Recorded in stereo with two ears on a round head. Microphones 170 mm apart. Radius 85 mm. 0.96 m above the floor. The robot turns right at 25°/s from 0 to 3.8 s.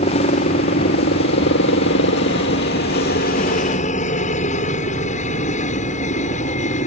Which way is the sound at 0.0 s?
40° left.